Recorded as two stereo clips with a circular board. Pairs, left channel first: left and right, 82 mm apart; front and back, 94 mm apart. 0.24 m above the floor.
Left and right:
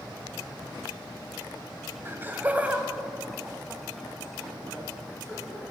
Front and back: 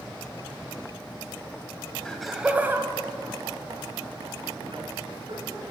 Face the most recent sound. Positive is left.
turn(degrees=170)